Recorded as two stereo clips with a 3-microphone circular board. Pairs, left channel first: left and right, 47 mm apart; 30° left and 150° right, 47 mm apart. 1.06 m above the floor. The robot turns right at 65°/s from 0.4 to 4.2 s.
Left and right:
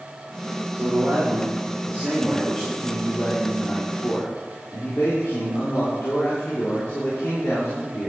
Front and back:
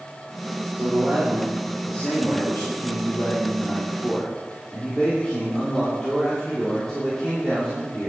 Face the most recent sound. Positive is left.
turn(degrees=105)